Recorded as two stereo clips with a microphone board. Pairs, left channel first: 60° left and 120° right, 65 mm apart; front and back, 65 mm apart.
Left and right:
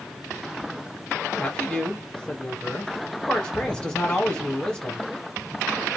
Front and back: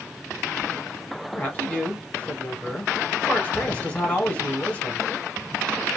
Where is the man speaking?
20° left, 1.0 m.